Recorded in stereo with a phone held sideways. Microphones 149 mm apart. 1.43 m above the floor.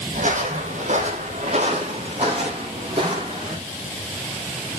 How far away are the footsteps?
About 3 m.